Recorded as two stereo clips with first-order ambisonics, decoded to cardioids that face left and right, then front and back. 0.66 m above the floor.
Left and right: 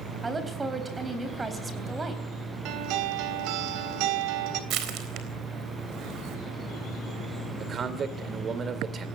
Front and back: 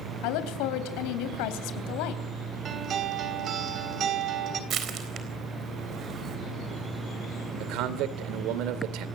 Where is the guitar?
120° right, 3 m.